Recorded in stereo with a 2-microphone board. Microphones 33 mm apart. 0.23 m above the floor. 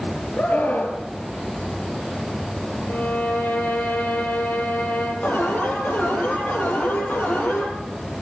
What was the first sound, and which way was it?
A scream, 50° left (ahead or behind).